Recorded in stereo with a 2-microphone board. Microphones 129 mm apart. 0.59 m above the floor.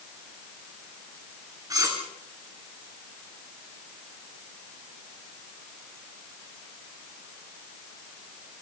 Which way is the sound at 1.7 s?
30° right (ahead or behind).